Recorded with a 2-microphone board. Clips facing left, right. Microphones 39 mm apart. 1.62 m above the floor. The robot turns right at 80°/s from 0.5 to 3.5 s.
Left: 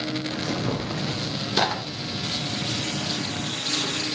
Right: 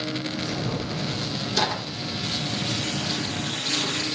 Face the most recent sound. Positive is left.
turn(degrees=-40)  # may be behind; listen again after turning